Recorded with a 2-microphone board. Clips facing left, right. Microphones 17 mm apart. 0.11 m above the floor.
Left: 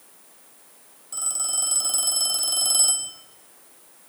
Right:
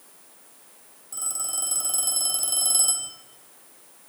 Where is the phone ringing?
25° left (ahead or behind), 2 m.